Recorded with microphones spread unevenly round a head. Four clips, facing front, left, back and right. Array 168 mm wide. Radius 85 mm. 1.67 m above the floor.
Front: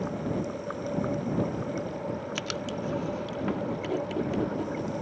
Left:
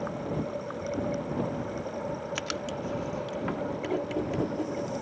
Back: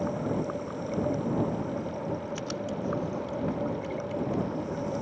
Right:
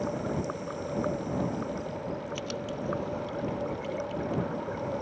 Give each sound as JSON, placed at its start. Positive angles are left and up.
{"t": 2.4, "sound": "writing", "azimuth_deg": 40}